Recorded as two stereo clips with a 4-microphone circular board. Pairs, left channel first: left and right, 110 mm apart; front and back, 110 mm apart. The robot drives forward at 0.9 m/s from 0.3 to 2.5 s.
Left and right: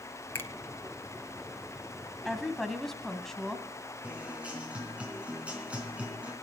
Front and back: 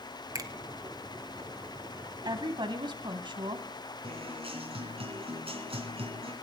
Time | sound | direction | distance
0.3 | a finger snap | 145° left | 1.0 m
2.2 | a woman speaking | 175° left | 1.4 m
4.0 | a guitar | 165° right | 3 m